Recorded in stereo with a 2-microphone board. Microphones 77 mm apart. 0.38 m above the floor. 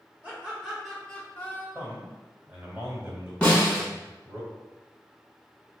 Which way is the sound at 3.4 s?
15° left (ahead or behind).